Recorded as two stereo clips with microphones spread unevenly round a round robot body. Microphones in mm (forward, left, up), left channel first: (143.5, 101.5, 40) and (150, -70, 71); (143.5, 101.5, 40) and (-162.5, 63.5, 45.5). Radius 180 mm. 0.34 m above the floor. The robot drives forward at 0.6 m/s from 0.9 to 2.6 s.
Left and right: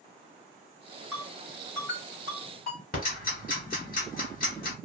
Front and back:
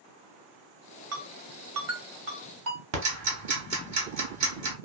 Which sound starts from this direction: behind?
A ringtone, at 1.1 s.